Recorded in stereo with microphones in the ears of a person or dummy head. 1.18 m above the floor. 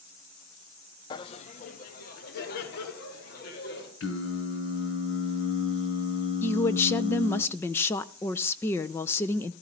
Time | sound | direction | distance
1.1 | laughter | 25° left (ahead or behind) | 0.8 m
4.0 | singing | 75° left (ahead or behind) | 4 m
6.4 | a woman speaking | 10° left (ahead or behind) | 0.6 m